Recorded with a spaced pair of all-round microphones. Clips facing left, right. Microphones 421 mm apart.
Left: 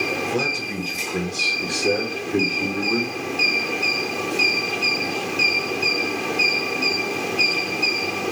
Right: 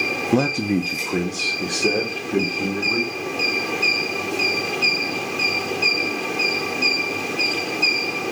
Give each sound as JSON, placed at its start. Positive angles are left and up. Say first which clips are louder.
{"t": 0.3, "sound": "a man speaking", "louder": "right 7 dB", "side_deg": -65, "distance_m": 0.6}